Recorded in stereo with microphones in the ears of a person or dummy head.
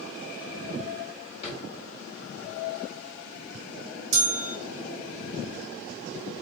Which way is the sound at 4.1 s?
50° right (ahead or behind).